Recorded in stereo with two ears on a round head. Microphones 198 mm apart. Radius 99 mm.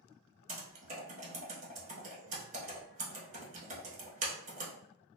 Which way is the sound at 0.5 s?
35° right (ahead or behind).